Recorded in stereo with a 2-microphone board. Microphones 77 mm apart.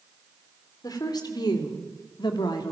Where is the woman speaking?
60° left (ahead or behind), 3 m; by 2.7 s 70° left (ahead or behind), 2.5 m.